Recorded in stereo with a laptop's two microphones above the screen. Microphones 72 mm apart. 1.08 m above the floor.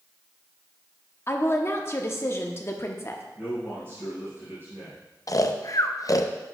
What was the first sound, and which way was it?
A woman speaking, 35° left (ahead or behind).